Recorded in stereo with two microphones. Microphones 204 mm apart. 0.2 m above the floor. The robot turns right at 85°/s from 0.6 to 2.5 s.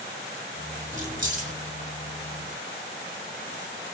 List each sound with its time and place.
0.9 s keys jangling: 115° right, 1.0 m; by 1.5 s 65° right, 1.0 m